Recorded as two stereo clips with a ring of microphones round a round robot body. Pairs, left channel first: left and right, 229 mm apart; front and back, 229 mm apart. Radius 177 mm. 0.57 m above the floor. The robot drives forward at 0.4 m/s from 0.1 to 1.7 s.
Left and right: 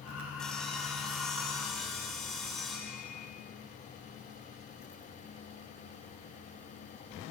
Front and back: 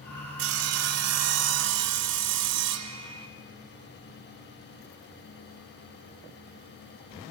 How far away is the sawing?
About 0.5 m.